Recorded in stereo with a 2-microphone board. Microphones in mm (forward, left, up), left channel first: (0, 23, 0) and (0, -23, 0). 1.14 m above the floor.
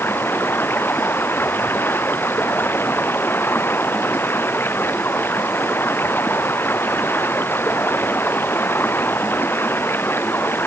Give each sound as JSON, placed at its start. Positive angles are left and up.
{"t": 0.0, "sound": "running water", "side_deg": 55}